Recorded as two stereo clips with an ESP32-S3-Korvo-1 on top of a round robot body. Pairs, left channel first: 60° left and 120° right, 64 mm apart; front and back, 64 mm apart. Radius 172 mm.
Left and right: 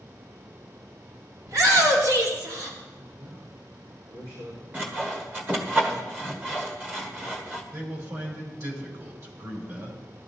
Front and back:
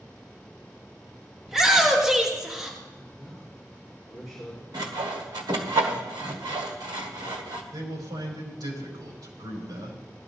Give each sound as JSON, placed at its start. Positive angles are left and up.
{"t": 1.5, "sound": "a shout", "azimuth_deg": -95, "distance_m": 3.0}
{"t": 3.0, "sound": "a man speaking", "azimuth_deg": -90, "distance_m": 5.0}
{"t": 4.7, "sound": "sawing", "azimuth_deg": 175, "distance_m": 1.4}
{"t": 7.7, "sound": "a man speaking", "azimuth_deg": -165, "distance_m": 5.0}